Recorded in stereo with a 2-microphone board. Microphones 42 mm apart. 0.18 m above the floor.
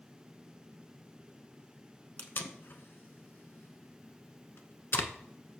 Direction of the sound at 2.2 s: 60° left (ahead or behind).